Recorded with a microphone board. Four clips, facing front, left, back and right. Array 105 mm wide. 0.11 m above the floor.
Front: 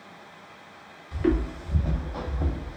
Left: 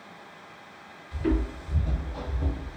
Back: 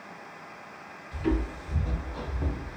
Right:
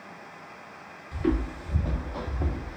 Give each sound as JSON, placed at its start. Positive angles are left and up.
{"t": 1.1, "sound": "footsteps", "azimuth_deg": -15, "distance_m": 1.4}